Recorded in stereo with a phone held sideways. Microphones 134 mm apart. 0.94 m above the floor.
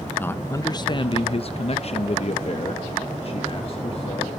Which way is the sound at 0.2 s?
15° left (ahead or behind).